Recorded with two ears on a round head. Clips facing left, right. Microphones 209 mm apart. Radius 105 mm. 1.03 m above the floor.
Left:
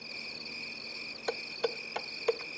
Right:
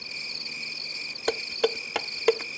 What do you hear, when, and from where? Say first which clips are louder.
0.0 s an insect: right 1 dB; 75° right (ahead or behind)
1.3 s dishes clattering: right 8 dB; 75° right (ahead or behind)